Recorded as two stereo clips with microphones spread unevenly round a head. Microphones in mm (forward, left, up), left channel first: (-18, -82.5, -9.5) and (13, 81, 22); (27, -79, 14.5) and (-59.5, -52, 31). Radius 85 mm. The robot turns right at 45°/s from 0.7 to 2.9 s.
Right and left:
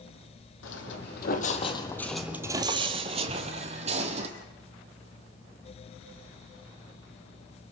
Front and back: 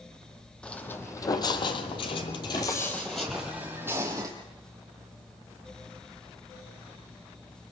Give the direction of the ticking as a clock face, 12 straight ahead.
11 o'clock.